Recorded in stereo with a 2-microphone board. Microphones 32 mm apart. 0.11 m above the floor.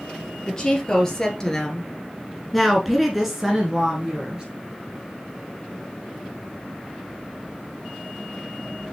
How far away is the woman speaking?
About 1.8 m.